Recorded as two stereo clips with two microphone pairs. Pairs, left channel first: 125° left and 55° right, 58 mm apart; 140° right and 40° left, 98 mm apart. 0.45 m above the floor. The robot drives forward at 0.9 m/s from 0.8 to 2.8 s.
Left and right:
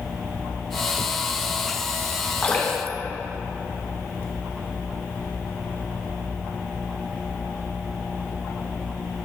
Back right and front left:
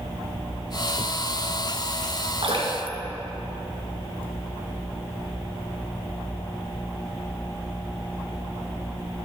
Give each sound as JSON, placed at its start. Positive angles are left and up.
{"t": 2.4, "sound": "dripping", "azimuth_deg": 60, "distance_m": 3.0}